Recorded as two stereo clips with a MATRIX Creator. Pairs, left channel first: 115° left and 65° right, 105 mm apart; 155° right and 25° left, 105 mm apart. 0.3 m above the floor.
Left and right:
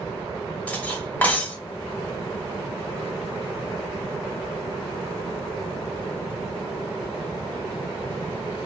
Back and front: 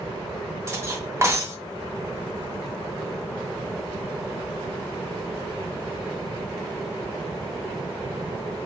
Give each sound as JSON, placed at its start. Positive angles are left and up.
{"t": 0.7, "sound": "cutlery clinking", "azimuth_deg": 50, "distance_m": 0.8}